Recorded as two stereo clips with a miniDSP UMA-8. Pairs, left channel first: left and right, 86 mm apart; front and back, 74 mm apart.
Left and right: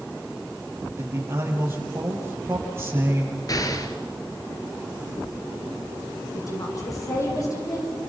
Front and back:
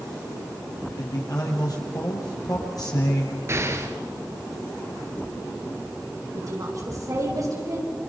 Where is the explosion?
130° left, 1.9 m.